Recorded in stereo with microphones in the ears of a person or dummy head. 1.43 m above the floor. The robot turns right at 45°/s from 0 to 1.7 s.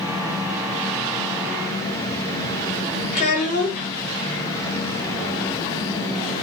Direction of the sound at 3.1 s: 45° left (ahead or behind).